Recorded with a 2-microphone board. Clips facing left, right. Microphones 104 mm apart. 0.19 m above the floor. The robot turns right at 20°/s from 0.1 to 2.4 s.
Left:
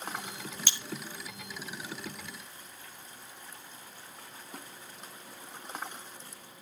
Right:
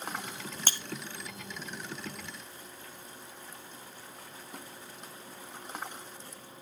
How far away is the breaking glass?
About 1.3 m.